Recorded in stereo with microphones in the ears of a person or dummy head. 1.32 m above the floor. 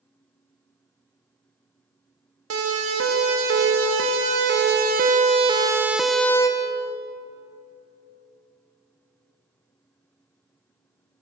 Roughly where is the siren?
Right.